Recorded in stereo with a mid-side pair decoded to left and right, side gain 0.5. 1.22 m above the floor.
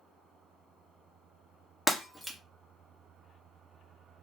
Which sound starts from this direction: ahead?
Breaking glass, at 1.9 s.